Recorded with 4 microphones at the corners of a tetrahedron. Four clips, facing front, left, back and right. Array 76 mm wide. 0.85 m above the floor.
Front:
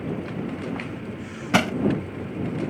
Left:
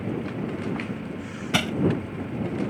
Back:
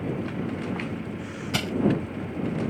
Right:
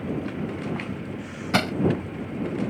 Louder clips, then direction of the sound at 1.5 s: Right 2 dB, front 9 dB; 20° right.